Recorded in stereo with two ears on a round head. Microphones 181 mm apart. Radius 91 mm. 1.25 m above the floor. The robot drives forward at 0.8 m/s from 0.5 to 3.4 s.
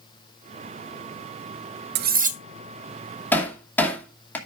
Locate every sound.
1.9 s cutlery clinking: 55° right (ahead or behind), 0.5 m; by 2.4 s 35° right (ahead or behind), 0.8 m
3.3 s hammering: 10° left (ahead or behind), 2.5 m